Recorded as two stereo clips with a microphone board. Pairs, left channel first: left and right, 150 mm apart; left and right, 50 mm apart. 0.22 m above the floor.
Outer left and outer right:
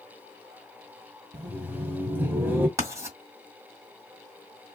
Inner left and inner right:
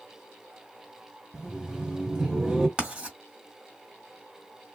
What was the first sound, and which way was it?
Laughter, 15° right (ahead or behind).